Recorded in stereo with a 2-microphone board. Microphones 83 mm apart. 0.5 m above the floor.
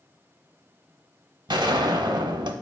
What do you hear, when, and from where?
1.5 s a gunshot: 75° right (ahead or behind), 0.5 m